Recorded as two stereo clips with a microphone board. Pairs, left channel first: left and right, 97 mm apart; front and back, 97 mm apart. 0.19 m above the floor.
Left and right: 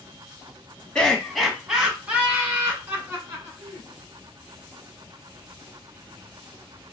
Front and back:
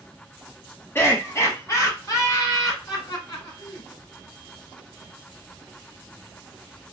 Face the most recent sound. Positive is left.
turn(degrees=-40)